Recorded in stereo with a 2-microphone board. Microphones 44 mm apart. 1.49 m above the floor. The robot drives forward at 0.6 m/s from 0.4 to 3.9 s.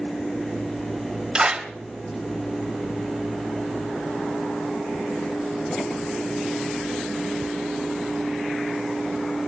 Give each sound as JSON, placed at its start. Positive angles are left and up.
{"t": 1.4, "sound": "a clap", "side_deg": -15, "distance_m": 3.5}